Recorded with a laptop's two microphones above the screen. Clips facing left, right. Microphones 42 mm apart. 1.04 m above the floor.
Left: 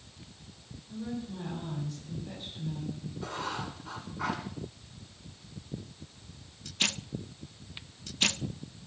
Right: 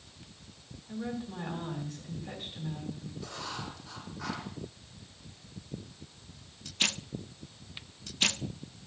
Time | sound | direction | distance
0.9 | a woman speaking | 30° right (ahead or behind) | 7.5 m
3.2 | writing | 75° left (ahead or behind) | 5.5 m